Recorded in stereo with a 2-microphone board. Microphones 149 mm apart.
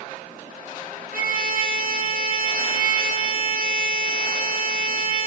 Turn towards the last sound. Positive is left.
turn(degrees=-70)  # may be behind; listen again after turning